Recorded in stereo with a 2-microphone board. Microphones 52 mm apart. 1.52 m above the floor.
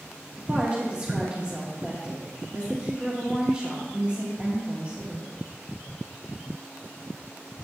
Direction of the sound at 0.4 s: 20° right (ahead or behind).